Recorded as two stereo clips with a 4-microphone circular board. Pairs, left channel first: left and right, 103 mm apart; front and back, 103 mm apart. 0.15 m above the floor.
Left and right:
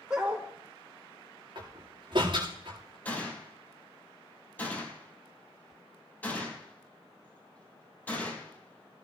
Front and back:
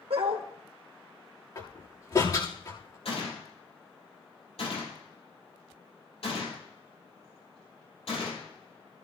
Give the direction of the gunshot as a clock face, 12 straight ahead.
11 o'clock.